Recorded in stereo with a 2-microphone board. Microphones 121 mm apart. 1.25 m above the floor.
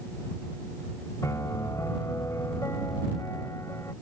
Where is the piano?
25° left (ahead or behind).